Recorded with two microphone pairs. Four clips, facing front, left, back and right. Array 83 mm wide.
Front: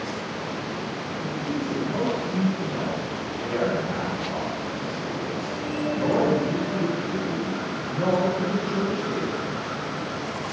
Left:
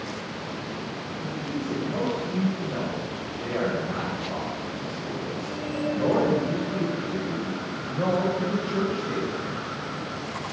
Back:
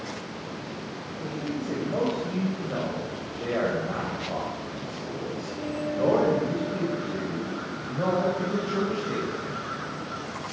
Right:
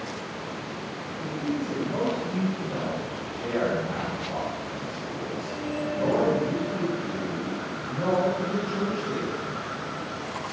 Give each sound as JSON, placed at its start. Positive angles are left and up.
{"t": 1.2, "sound": "a man speaking", "azimuth_deg": 175, "distance_m": 5.5}